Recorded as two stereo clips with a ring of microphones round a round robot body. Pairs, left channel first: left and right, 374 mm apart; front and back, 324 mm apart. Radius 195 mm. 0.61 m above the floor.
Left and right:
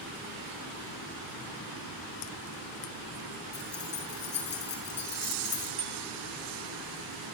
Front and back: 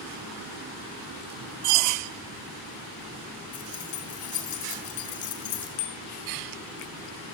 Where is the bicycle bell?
15° right, 5.5 m.